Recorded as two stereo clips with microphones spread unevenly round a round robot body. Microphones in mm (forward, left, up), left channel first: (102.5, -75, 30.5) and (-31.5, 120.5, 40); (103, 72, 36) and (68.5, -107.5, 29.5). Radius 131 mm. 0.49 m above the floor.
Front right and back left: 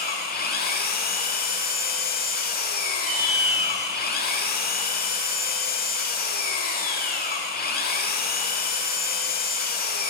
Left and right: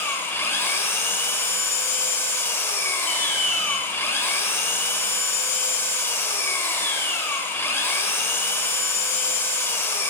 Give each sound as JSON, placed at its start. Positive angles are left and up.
{"t": 0.0, "sound": "an engine running", "azimuth_deg": 0, "distance_m": 0.8}
{"t": 3.1, "sound": "an alarm", "azimuth_deg": 35, "distance_m": 3.0}